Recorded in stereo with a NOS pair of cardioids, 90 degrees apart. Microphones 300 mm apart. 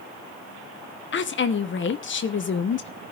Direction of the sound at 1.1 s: 40° left.